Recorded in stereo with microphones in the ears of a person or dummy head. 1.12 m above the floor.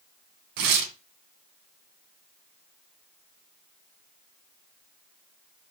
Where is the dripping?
No dripping in this recording.